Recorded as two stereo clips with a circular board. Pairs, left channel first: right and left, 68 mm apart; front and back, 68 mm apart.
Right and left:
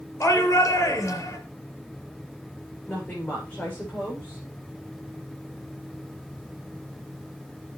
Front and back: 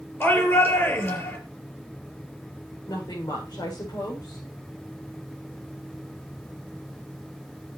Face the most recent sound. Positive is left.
turn(degrees=-20)